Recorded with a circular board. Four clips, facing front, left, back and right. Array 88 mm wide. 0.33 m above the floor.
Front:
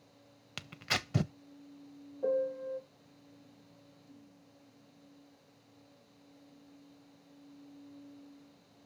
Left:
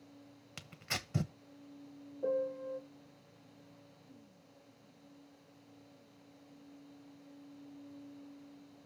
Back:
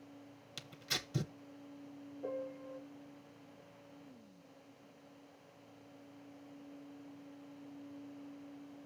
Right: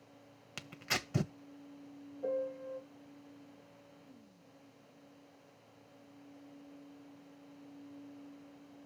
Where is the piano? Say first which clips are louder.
Left 2 dB, front 11 dB; 25° left, 2.5 m.